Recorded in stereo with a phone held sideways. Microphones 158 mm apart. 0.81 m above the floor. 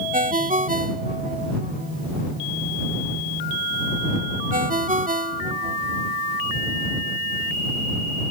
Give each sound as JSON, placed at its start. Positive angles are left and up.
{"t": 0.1, "sound": "a ringtone", "side_deg": -55}